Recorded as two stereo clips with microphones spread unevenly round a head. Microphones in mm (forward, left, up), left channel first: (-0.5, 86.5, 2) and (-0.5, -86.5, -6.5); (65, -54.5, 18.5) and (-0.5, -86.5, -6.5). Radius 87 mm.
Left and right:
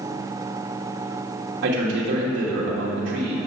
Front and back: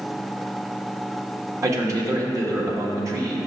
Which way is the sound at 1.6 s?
115° right.